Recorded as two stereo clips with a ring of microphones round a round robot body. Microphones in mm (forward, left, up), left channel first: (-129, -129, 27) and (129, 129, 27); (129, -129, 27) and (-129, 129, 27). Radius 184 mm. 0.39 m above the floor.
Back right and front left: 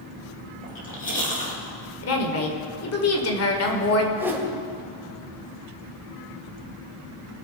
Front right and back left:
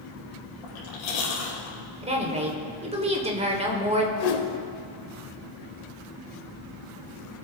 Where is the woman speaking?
160° right, 1.7 m.